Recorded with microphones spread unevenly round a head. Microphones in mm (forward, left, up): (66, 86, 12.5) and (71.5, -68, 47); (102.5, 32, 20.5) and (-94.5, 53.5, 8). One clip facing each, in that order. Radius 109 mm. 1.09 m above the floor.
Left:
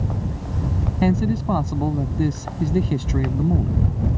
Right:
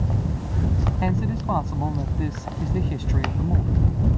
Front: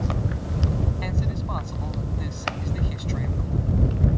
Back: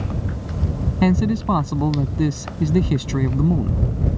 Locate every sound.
1.0 s a man speaking: 155° left